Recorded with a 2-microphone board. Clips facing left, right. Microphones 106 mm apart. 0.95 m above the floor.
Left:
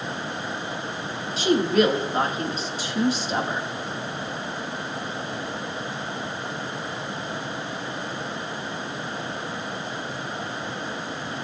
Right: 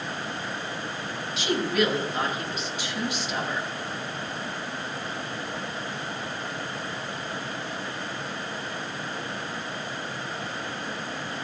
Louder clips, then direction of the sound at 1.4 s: Left 6 dB; 40° left (ahead or behind).